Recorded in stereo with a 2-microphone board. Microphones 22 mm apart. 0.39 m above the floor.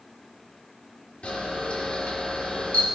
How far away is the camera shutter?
About 3.5 m.